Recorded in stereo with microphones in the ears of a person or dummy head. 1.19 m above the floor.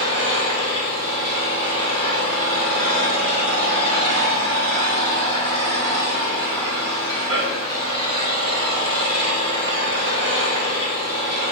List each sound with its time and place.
0.0 s an engine running: 80° right, 4 m